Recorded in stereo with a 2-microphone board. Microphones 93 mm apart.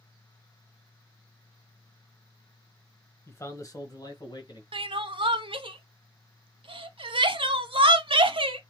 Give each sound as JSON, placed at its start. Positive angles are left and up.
{"t": 3.3, "sound": "a man speaking", "side_deg": 25, "distance_m": 1.1}
{"t": 4.7, "sound": "crying", "side_deg": -70, "distance_m": 0.5}